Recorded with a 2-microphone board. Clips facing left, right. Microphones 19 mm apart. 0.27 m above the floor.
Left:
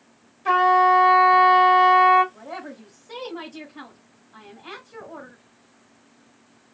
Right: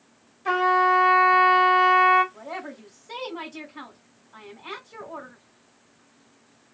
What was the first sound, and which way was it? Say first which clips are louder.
A trumpet: left 4 dB; centre (ahead or behind).